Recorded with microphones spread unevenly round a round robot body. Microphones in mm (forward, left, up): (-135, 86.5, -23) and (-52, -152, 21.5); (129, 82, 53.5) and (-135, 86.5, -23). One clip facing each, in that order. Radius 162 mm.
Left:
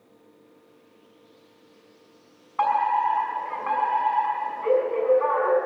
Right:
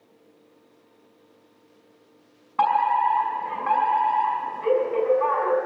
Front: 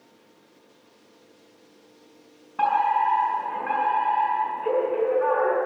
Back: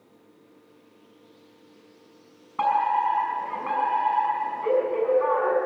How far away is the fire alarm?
About 5.5 m.